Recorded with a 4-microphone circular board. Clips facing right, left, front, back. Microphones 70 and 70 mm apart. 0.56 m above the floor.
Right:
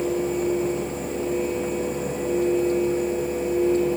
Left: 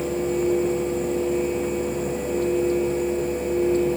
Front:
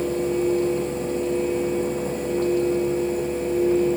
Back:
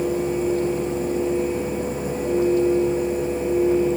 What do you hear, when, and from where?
Only background noise.